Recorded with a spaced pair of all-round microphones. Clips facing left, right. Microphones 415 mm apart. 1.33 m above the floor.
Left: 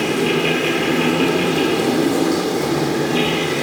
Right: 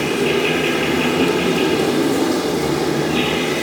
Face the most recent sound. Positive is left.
turn(degrees=-65)  # may be behind; listen again after turning